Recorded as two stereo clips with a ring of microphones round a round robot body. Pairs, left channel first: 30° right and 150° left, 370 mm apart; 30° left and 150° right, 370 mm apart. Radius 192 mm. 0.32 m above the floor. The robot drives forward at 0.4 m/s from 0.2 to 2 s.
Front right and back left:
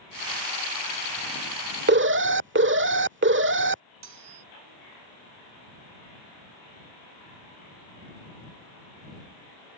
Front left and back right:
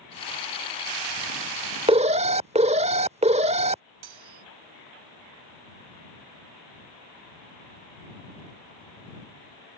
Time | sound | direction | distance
1.9 | an alarm | 150° left | ?
4.0 | cutlery clinking | 165° right | ?